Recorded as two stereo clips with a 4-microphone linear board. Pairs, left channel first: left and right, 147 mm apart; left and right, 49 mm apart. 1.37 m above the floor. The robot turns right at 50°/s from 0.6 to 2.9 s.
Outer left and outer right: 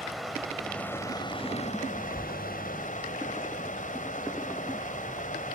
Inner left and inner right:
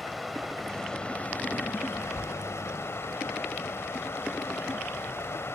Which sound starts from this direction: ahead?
Running water, at 0.0 s.